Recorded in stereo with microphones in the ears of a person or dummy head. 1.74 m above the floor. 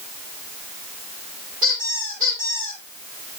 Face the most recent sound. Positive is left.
turn(degrees=-45)  # may be behind; listen again after turning